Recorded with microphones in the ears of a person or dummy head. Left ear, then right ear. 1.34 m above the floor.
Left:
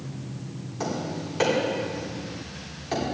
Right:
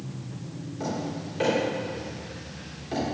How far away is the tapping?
About 3.5 m.